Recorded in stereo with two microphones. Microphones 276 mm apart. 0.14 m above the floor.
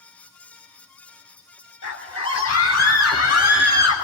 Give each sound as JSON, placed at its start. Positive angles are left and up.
{"t": 1.8, "sound": "a scream", "side_deg": 65, "distance_m": 4.0}